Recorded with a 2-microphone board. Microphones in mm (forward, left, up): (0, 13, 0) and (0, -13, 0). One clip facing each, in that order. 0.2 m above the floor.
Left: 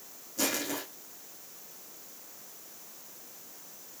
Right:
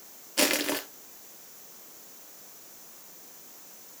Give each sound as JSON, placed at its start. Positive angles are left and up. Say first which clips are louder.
{"t": 0.4, "sound": "crushing", "louder": "right 6 dB", "side_deg": -70, "distance_m": 2.5}